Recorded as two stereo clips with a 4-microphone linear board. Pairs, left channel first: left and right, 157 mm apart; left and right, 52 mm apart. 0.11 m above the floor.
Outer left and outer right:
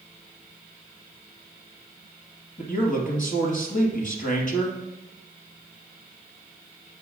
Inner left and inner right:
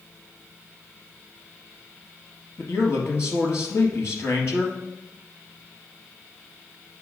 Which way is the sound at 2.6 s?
55° left (ahead or behind).